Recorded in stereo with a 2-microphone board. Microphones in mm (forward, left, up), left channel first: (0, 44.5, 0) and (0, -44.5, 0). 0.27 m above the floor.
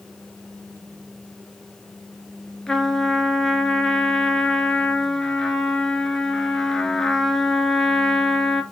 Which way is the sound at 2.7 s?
5° left (ahead or behind).